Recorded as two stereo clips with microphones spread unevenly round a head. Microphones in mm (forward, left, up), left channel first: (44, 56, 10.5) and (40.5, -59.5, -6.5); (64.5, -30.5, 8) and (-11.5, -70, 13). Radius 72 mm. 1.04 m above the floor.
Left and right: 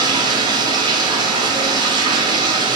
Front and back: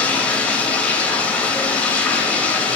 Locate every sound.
0.0 s running water: 45° right, 1.1 m